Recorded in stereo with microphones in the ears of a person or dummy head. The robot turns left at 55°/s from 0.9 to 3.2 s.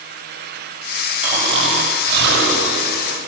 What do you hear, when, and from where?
1.2 s snoring: 10° right, 8.5 m; by 3.2 s 115° right, 8.5 m